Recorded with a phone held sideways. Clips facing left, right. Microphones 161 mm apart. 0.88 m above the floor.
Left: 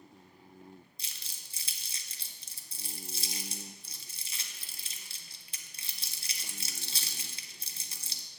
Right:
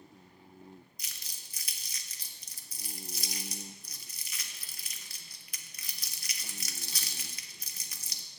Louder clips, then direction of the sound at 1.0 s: Even; 30° left (ahead or behind).